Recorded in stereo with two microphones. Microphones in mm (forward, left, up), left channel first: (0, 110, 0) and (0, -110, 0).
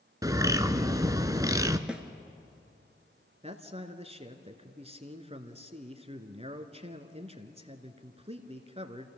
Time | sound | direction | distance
0.2 | a bird | 15° right (ahead or behind) | 0.7 m
1.9 | a snare drum | 5° right (ahead or behind) | 1.0 m
3.4 | a man speaking | 30° right (ahead or behind) | 1.3 m